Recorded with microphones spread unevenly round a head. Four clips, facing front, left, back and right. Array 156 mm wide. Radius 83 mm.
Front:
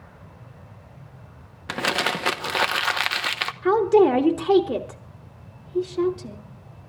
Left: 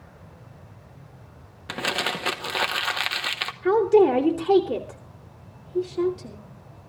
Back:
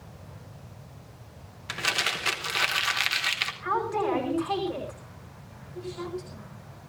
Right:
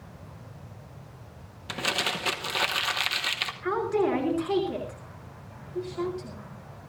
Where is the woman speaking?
25° left, 3 m.